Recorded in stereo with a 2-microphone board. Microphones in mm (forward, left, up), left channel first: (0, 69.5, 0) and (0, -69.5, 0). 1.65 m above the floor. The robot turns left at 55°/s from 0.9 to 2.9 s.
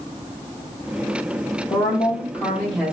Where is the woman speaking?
55° left, 0.7 m; by 2.9 s 10° right, 0.7 m.